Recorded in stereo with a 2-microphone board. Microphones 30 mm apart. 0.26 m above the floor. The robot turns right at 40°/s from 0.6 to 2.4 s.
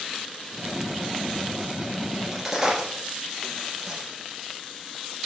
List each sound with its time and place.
2.1 s a crack: centre (ahead or behind), 3.5 m; by 4.1 s 10° right (ahead or behind), 3.5 m